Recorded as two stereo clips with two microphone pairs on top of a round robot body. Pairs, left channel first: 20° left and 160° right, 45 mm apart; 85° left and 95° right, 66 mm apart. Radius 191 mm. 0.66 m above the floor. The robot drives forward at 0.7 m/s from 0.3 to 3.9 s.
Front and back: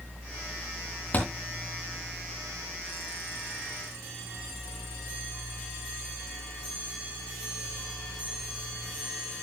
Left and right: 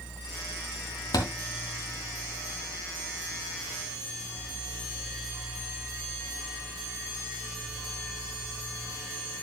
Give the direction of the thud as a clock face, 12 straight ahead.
10 o'clock.